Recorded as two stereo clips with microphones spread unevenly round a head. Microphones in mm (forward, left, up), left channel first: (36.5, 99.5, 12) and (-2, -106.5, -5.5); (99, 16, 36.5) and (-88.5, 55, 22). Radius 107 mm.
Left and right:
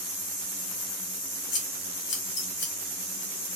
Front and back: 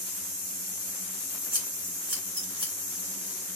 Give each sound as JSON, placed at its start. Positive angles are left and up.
{"t": 1.5, "sound": "scissors", "azimuth_deg": 105, "distance_m": 2.5}